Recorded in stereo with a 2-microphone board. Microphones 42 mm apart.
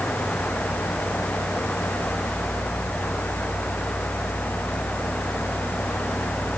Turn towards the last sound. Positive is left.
No sound to turn to.